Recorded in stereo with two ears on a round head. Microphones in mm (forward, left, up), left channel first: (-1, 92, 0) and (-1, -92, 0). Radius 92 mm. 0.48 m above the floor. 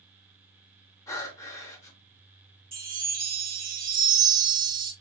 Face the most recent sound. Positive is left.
turn(degrees=-45)  # may be behind; listen again after turning